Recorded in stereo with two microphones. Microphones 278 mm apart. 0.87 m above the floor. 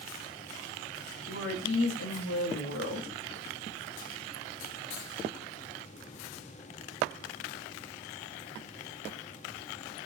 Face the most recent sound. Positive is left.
turn(degrees=55)  # may be behind; listen again after turning